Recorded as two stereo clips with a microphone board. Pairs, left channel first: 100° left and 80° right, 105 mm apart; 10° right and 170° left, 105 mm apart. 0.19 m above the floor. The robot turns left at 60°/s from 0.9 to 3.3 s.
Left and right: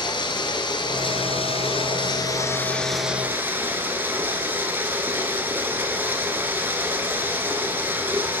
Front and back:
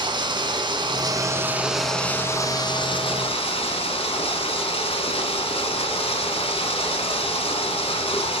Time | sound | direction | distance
0.0 | running water | 135° left | 1.0 m